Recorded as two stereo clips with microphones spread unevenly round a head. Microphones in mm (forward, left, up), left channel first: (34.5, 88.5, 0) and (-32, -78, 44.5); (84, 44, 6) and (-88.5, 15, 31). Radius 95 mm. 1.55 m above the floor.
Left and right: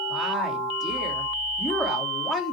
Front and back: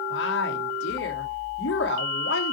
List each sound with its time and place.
0.1 s a woman speaking: 25° right, 3 m